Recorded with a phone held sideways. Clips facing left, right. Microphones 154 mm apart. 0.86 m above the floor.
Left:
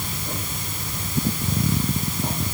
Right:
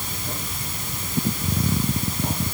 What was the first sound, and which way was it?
Only background noise.